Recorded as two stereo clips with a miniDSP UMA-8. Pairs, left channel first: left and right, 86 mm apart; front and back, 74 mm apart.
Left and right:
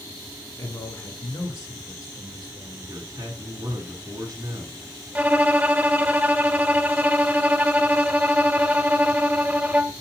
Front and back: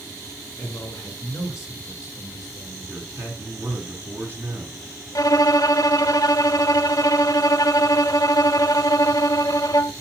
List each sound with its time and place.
0.6 s a man speaking: 35° left, 2.5 m; by 3.0 s 45° left, 4 m
2.9 s a man speaking: 130° right, 2.5 m
5.2 s a violin: 20° right, 0.5 m